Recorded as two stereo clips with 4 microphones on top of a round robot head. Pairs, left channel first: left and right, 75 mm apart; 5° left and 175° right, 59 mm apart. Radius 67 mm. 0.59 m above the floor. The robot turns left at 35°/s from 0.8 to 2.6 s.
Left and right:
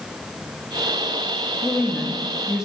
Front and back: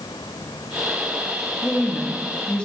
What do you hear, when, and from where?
1.6 s a woman speaking: 10° left, 0.9 m; by 2.6 s 25° right, 0.9 m